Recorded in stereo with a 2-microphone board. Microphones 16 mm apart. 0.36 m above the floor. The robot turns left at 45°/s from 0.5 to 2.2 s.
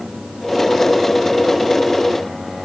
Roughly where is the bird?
I don't hear a bird.